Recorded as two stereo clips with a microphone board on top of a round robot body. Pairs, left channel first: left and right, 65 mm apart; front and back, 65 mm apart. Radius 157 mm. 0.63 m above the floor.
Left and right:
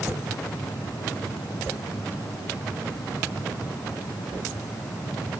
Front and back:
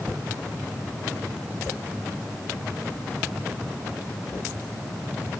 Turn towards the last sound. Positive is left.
No sound to turn to.